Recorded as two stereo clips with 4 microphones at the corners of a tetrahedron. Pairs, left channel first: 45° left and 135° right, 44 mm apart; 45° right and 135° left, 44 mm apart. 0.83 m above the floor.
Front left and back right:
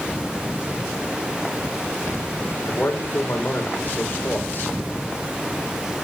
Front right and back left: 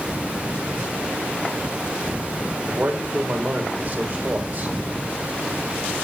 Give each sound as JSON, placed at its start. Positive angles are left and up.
{"t": 2.7, "sound": "a man speaking", "azimuth_deg": 90, "distance_m": 3.5}